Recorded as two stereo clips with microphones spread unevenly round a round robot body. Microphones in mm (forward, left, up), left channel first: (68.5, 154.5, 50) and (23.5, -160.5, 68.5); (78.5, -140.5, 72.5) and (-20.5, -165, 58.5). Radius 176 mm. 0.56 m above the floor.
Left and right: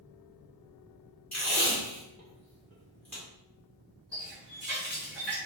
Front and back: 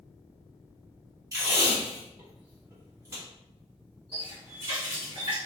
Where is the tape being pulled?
165° left, 1.7 m.